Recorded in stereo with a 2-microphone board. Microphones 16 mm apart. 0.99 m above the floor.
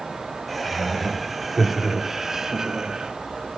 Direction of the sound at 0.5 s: 10° left (ahead or behind).